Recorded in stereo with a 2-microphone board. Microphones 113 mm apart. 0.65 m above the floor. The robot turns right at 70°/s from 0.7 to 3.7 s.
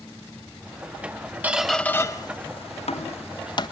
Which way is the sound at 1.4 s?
15° right (ahead or behind).